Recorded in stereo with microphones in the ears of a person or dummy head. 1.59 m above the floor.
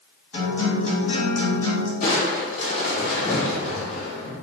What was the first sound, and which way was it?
A guitar, 40° left (ahead or behind).